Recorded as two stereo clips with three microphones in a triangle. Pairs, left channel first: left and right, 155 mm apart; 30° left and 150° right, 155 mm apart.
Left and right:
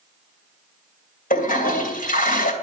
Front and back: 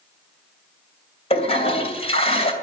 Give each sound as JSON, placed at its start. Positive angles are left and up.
{"t": 1.3, "sound": "a toilet flushing", "azimuth_deg": 75, "distance_m": 2.5}